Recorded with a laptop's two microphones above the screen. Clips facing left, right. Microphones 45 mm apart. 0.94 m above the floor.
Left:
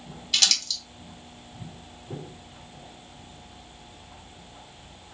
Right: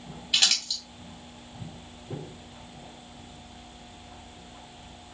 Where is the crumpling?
20° right (ahead or behind), 2.5 m.